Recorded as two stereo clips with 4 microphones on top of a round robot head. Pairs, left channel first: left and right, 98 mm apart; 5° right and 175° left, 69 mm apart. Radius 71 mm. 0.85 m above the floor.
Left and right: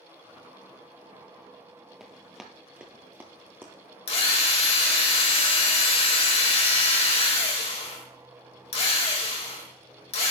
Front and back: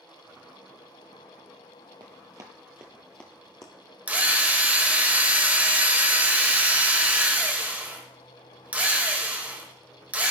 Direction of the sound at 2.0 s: 175° right.